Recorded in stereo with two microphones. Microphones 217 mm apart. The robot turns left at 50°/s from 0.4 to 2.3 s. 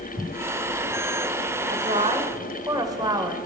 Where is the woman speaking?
130° right, 1.5 m; by 3.4 s 160° right, 1.5 m.